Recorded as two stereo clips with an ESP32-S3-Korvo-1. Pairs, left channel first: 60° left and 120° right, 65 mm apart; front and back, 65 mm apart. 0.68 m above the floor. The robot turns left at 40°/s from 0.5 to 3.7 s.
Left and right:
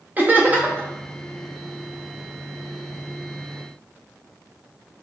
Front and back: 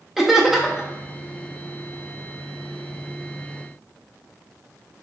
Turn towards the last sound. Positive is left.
turn(degrees=135)